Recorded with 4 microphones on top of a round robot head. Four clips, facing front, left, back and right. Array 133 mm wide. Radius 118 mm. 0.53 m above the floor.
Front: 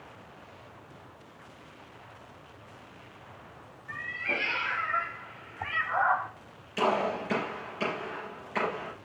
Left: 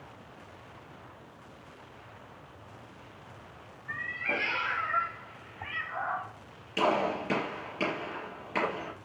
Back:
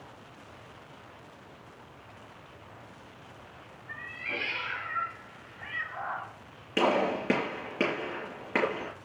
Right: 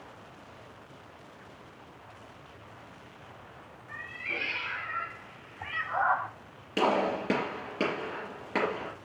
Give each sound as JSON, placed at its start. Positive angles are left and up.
{"t": 3.9, "sound": "a cat meowing", "azimuth_deg": 65, "distance_m": 1.6}
{"t": 6.8, "sound": "a gunshot", "azimuth_deg": -150, "distance_m": 4.0}